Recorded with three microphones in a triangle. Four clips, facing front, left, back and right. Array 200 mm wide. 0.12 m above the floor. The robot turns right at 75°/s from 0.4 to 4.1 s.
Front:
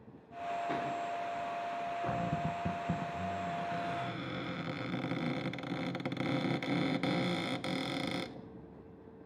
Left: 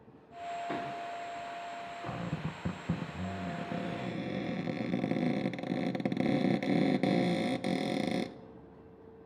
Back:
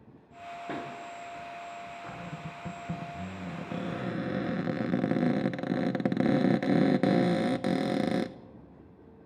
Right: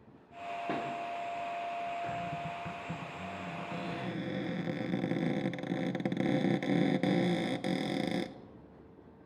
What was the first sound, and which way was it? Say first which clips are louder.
A pop: right 3 dB, back 1 dB; 115° right.